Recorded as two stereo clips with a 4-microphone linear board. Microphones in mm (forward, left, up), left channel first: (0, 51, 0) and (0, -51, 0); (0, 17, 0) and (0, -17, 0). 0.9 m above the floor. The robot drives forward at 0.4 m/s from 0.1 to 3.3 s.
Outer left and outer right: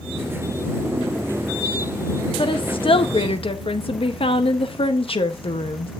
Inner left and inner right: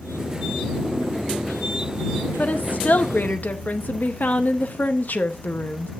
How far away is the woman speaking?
About 0.9 m.